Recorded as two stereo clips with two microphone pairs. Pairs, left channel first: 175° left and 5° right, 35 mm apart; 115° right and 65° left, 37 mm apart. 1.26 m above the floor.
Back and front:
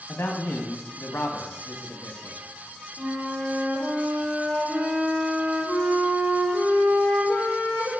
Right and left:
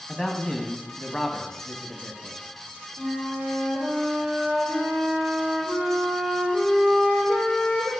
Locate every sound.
0.1 s a man speaking: 165° left, 0.6 m
3.0 s a flute: 25° left, 2 m